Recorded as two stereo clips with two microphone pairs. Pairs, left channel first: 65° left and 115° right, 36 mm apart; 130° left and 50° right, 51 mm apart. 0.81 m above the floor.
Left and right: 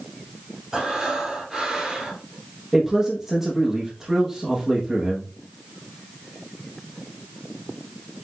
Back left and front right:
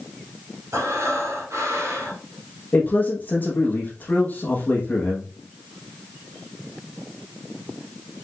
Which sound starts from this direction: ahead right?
Breathing, at 0.7 s.